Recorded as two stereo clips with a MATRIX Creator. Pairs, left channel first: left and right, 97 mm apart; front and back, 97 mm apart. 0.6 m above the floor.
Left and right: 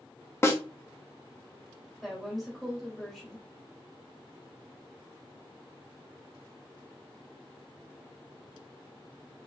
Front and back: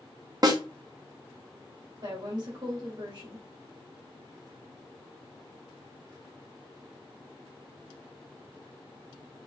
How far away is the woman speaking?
About 1.5 m.